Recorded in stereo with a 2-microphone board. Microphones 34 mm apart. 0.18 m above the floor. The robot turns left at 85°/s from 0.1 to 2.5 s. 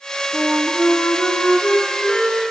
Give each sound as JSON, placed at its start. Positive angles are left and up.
{"t": 0.3, "sound": "a flute", "azimuth_deg": 155, "distance_m": 1.5}